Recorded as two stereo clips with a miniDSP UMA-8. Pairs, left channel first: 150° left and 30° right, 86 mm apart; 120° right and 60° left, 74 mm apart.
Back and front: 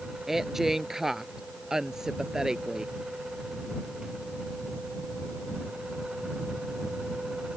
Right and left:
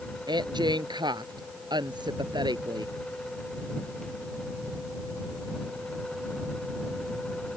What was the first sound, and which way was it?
A woman speaking, 55° left.